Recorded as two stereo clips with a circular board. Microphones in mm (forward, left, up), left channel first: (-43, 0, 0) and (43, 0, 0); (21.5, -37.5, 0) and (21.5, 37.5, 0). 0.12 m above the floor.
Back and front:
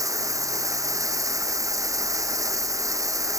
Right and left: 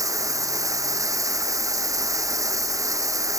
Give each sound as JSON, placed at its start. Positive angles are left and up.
{"t": 0.0, "sound": "running water", "azimuth_deg": 50}